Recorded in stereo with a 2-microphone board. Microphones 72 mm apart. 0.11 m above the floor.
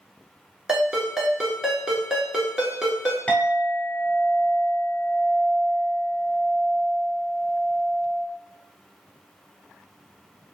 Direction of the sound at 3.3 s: 20° left (ahead or behind).